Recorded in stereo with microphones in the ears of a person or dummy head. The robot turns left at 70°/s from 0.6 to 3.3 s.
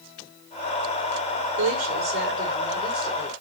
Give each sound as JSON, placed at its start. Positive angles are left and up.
{"t": 1.6, "sound": "a woman speaking", "azimuth_deg": -75, "distance_m": 5.0}